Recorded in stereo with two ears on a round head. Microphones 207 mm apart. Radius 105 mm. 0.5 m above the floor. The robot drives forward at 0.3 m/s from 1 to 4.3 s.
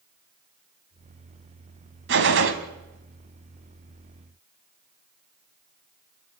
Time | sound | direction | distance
2.1 | a gunshot | 50° right (ahead or behind) | 1.5 m